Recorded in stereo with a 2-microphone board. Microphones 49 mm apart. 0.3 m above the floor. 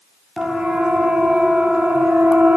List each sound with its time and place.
0.4 s a siren: 5° right (ahead or behind), 4.5 m; by 2.6 s 25° right (ahead or behind), 4.5 m